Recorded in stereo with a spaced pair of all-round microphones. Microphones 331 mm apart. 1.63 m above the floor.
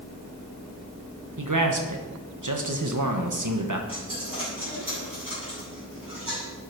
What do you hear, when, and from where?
1.4 s a man speaking: 65° right (ahead or behind), 1.4 m
3.9 s a dropped coin: 80° right, 6 m